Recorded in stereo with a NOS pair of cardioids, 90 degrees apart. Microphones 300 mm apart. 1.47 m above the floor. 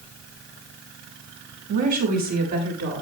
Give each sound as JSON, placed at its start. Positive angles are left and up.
{"t": 1.7, "sound": "a woman speaking", "azimuth_deg": -70, "distance_m": 6.5}